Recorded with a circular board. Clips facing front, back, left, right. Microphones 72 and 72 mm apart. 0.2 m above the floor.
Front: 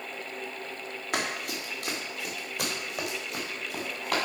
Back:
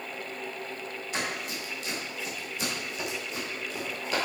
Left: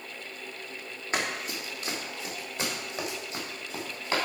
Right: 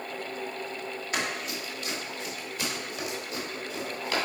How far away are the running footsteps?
About 3 m.